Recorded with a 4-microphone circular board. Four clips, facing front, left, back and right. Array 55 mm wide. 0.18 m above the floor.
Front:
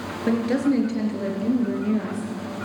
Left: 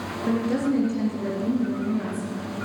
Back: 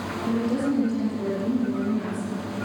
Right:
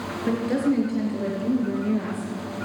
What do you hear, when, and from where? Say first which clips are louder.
0.3 s a woman speaking: right 1 dB, front 4 dB; 10° right, 2.5 m; by 2.3 s 35° right, 3.5 m